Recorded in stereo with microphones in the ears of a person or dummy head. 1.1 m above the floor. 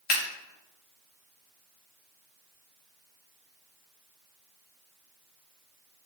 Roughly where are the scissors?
Left.